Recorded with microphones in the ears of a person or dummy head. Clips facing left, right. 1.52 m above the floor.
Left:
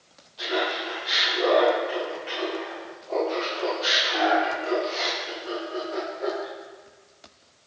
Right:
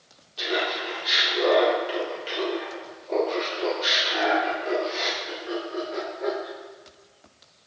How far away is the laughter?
About 2.5 m.